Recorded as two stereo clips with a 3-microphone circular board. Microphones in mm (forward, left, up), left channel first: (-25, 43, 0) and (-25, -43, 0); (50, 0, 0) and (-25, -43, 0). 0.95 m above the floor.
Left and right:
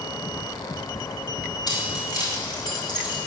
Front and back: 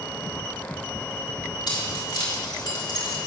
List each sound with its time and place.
1.7 s keys jangling: 60° left, 3 m